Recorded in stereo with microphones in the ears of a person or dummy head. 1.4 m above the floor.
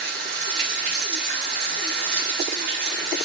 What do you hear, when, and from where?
0.0 s running water: 50° right (ahead or behind), 2 m